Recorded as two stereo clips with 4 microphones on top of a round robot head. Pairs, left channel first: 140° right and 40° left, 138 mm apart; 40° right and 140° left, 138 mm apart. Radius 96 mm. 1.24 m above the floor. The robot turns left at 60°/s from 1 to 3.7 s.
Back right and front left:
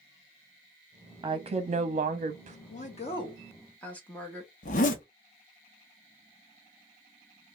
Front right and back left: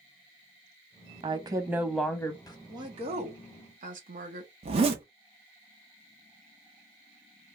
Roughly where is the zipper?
Behind.